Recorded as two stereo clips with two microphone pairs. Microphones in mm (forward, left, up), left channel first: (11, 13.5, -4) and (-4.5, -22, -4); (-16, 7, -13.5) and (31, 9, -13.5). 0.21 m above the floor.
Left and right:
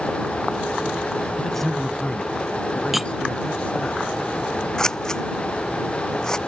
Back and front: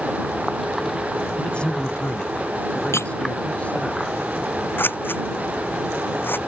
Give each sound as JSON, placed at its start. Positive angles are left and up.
{"t": 1.4, "sound": "a man speaking", "azimuth_deg": 150}
{"t": 2.9, "sound": "cutlery clinking", "azimuth_deg": 160}
{"t": 4.8, "sound": "scissors", "azimuth_deg": 140}